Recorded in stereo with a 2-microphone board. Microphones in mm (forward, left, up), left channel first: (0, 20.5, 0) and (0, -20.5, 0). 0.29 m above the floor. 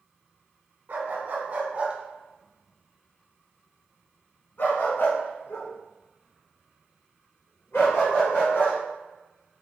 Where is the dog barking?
50° right (ahead or behind), 1.2 m; by 8.8 s 80° left, 3 m.